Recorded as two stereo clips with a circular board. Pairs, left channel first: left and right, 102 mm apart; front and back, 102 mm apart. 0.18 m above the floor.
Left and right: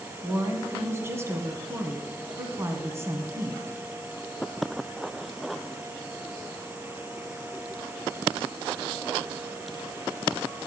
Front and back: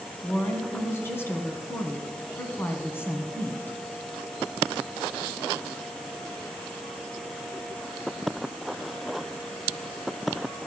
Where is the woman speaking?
50° right, 1.5 m.